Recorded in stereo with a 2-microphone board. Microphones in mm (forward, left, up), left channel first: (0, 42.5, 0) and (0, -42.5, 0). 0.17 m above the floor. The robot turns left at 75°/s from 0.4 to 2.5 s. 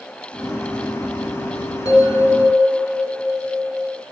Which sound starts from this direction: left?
A bell, at 1.9 s.